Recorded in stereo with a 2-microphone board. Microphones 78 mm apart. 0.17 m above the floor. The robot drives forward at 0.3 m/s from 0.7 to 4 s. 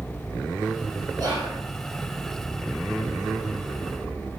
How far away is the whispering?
About 1.6 m.